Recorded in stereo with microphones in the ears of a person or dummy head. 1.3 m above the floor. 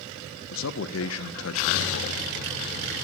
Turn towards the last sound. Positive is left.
turn(degrees=70)  # may be behind; listen again after turning